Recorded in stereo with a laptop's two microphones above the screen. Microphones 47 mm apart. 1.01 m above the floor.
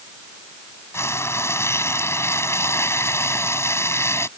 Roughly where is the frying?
Left.